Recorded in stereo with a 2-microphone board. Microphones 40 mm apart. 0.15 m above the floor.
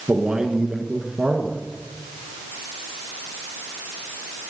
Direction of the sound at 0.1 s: 20° right (ahead or behind).